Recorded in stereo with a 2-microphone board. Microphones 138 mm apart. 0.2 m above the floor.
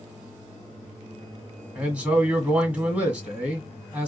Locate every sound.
1.8 s a man speaking: 10° right (ahead or behind), 1.3 m